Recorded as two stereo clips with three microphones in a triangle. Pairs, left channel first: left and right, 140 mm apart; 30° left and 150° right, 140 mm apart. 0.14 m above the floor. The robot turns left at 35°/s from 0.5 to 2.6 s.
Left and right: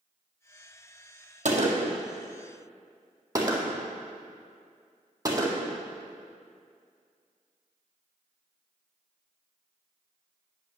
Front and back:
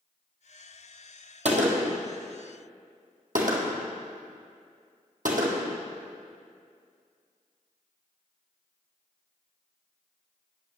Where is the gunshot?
115° right, 1.7 m; by 5.7 s 155° right, 1.7 m.